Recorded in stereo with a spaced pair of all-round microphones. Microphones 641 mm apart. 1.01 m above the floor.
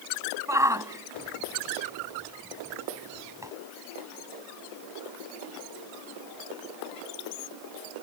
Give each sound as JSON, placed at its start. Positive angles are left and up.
{"t": 0.5, "sound": "a shout", "side_deg": -5}